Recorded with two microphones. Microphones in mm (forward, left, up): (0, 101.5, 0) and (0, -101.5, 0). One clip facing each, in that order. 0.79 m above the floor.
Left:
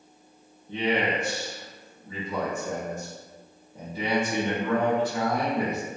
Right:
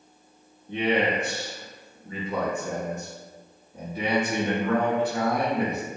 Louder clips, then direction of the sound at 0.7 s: Right 2 dB; 65° right (ahead or behind).